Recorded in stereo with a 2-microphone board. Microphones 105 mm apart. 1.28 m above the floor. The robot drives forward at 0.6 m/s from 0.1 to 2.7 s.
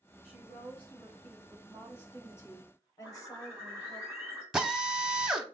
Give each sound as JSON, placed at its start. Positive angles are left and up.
{"t": 0.2, "sound": "a woman speaking", "side_deg": 10, "distance_m": 2.0}
{"t": 3.0, "sound": "a bird", "side_deg": -20, "distance_m": 1.4}
{"t": 4.5, "sound": "a drill", "side_deg": -5, "distance_m": 0.5}